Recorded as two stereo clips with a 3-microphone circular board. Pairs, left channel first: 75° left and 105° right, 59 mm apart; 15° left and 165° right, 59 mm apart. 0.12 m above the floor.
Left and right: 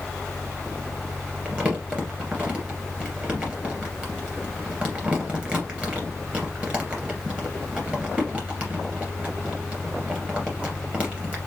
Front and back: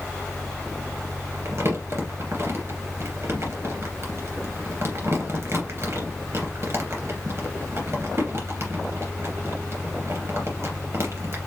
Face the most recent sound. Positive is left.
turn(degrees=-165)